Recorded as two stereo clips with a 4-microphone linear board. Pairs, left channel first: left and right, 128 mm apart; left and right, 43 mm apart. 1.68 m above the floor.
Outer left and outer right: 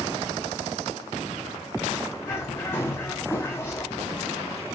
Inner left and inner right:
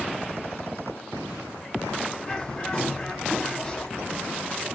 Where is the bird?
20° left (ahead or behind), 0.9 m.